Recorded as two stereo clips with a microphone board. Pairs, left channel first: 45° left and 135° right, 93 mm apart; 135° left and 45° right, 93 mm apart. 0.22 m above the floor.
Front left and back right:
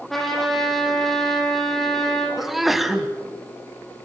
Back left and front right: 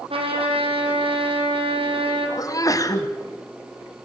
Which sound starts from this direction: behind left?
A sneeze, at 2.4 s.